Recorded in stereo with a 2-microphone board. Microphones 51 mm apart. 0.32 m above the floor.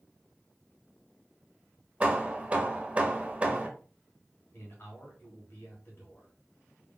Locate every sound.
2.0 s hammering: 25° right (ahead or behind), 0.7 m
4.5 s a man speaking: 45° left (ahead or behind), 1.7 m